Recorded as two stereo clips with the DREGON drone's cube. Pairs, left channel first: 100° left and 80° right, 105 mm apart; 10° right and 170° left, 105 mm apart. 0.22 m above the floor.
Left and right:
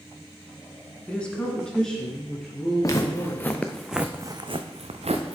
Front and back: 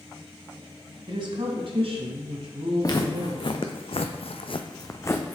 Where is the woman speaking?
175° left, 1.4 m; by 3.4 s 170° right, 3 m.